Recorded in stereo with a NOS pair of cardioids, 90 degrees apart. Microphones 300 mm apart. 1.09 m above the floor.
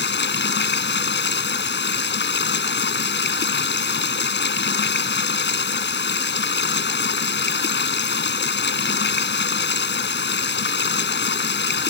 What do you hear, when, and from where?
0.0 s running water: 35° left